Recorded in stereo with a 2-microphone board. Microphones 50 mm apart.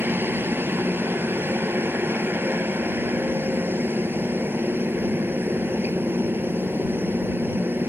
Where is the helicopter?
50° right (ahead or behind).